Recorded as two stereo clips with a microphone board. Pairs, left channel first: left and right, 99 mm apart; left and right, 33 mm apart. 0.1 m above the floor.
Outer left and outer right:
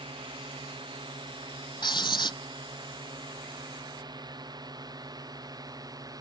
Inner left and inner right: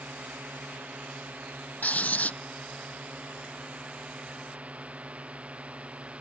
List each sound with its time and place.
0.0 s a drone: 60° right (ahead or behind); by 6.2 s 40° right (ahead or behind)
1.8 s writing: 55° left (ahead or behind)